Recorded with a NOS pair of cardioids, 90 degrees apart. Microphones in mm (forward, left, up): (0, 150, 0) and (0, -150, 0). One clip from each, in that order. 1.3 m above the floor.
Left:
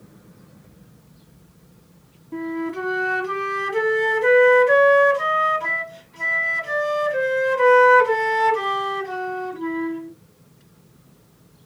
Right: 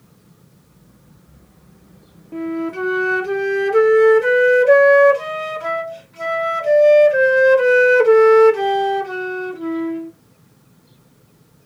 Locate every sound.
2.3 s a flute: 10° right, 1.7 m